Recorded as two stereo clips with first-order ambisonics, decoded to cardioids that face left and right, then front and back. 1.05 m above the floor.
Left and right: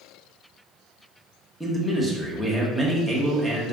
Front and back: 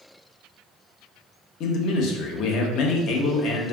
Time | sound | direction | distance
1.6 | a man speaking | 5° left | 0.6 m